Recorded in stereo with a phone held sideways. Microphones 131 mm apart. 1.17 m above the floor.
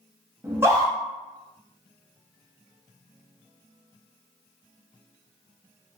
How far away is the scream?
About 0.8 m.